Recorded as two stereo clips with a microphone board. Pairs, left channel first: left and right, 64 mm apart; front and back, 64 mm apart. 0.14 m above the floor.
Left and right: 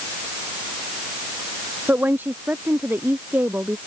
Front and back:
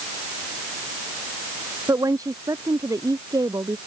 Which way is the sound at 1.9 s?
150° right.